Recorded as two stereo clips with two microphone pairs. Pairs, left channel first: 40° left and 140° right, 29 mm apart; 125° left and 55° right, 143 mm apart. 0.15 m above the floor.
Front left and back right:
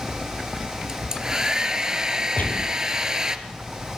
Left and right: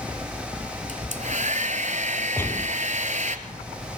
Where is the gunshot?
50° left, 3 m.